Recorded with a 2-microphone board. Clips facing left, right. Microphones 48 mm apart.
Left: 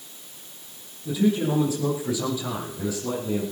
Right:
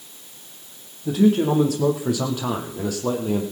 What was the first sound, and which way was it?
A man speaking, 60° right (ahead or behind).